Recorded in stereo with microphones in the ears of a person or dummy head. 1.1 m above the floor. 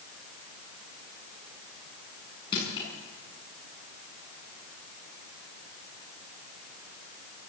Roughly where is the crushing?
Left.